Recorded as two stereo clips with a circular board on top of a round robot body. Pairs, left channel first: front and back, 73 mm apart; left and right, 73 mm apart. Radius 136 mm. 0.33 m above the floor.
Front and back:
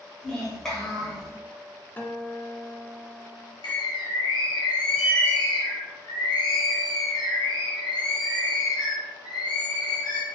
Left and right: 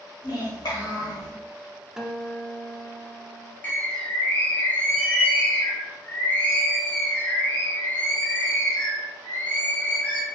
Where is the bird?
25° left, 0.7 m.